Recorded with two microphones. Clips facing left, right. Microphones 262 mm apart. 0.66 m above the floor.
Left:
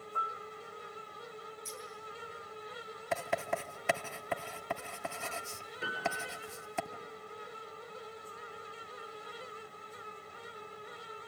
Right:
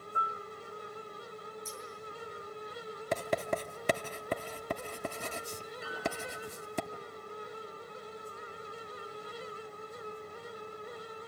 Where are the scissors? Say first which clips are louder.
Right 1 dB; 30° left (ahead or behind), 8 m.